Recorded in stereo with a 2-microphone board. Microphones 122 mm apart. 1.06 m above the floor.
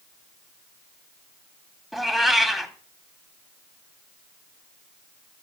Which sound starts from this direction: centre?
A cat meowing, at 1.9 s.